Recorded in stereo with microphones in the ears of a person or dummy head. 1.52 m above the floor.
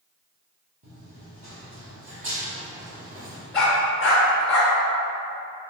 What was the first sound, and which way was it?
Running footsteps, 35° right (ahead or behind).